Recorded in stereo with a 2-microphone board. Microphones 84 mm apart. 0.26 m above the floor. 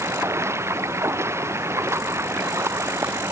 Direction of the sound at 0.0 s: 30° right (ahead or behind).